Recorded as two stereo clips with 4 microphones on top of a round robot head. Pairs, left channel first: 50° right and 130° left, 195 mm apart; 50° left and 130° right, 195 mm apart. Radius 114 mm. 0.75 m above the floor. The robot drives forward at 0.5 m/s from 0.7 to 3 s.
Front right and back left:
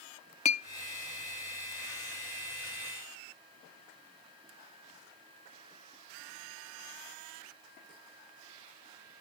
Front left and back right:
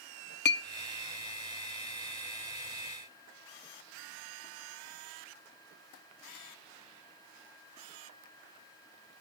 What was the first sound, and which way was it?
A clink, 10° left.